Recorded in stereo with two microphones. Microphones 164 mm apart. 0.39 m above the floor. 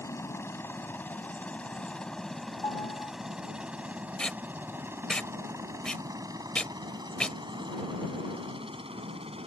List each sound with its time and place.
0.0 s a helicopter: 15° left (ahead or behind); by 9.5 s 35° right (ahead or behind)
2.6 s a piano: 20° left (ahead or behind)
4.2 s tape being pulled: 5° left (ahead or behind)